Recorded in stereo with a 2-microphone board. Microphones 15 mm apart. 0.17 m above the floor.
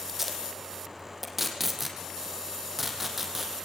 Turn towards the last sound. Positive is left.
turn(degrees=-15)  # may be behind; listen again after turning